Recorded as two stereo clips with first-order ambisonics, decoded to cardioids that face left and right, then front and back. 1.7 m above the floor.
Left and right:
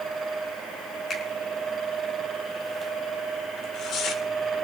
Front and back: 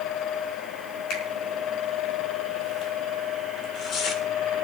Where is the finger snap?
25° left, 4 m.